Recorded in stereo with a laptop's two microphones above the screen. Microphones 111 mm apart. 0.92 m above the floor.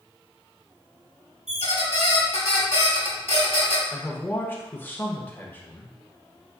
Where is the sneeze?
No sneeze in this recording.